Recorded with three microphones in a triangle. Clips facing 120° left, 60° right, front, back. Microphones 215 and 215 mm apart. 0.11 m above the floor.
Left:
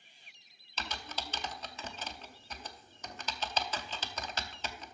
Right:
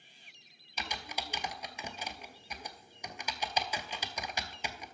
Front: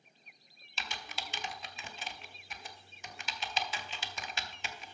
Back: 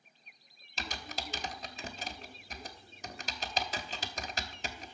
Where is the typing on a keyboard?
135° right, 0.6 m.